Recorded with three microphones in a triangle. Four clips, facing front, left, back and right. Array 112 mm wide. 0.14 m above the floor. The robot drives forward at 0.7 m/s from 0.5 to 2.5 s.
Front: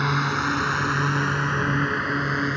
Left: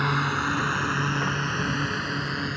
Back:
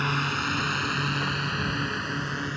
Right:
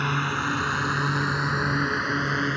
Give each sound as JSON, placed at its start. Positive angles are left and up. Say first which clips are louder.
{"t": 0.0, "sound": "a drone", "louder": "left 1 dB, front 4 dB", "azimuth_deg": 25}